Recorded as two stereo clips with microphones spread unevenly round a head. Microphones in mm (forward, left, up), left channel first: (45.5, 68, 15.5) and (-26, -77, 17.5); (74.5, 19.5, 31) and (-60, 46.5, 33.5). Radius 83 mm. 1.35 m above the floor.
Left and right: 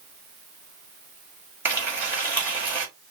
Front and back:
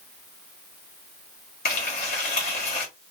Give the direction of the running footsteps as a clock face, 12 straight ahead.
I don't hear running footsteps.